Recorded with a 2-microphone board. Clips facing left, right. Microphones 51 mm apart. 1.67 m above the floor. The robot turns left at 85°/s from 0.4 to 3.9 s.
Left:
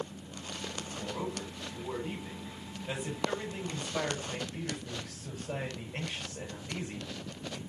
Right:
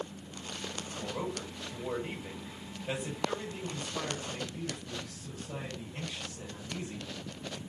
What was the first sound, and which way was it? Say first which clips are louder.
A man speaking: right 1 dB; 5° right.